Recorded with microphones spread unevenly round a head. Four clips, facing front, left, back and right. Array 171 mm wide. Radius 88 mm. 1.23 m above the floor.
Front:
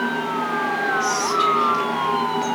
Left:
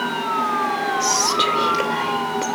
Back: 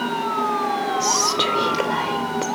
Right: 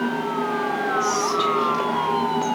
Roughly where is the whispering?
Behind left.